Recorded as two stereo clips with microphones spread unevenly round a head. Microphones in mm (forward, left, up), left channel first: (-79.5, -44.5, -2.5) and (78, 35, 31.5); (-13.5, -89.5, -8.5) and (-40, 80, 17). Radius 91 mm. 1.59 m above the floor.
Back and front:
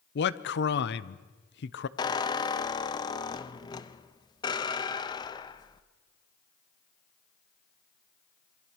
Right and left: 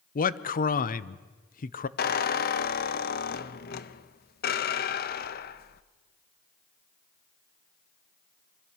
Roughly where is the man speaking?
Behind right.